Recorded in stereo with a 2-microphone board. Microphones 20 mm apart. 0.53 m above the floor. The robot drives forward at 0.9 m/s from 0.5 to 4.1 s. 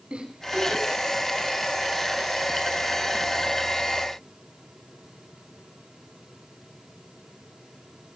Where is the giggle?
65° right (ahead or behind), 5 m; by 1.0 s 70° right (ahead or behind), 5 m.